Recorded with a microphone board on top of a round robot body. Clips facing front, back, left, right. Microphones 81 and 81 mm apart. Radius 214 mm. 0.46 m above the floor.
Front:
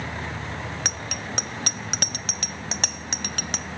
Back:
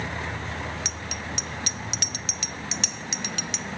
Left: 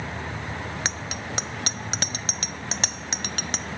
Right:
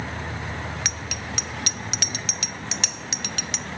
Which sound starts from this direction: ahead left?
A bicycle bell, at 0.8 s.